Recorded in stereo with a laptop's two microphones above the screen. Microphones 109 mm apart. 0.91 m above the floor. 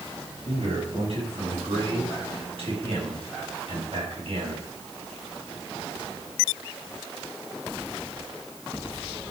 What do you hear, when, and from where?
0.5 s a man speaking: 60° right (ahead or behind), 6 m